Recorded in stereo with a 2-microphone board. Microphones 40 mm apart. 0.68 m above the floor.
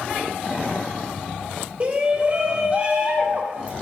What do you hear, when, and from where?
1.8 s a shout: 35° right (ahead or behind), 3 m